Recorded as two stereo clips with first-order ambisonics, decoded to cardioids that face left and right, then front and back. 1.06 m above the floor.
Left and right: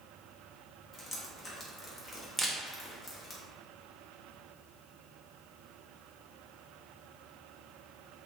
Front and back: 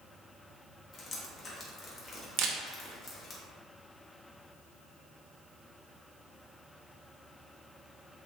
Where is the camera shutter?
175° right, 0.5 m.